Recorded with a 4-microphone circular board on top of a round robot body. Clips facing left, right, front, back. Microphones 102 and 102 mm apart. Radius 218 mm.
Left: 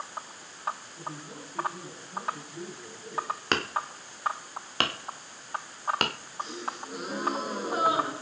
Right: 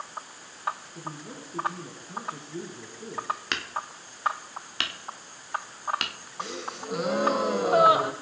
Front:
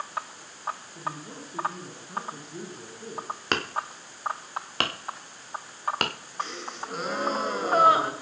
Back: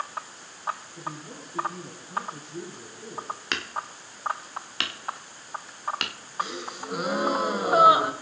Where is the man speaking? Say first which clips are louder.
Right 1 dB, front 2 dB; 70° right, 10 m.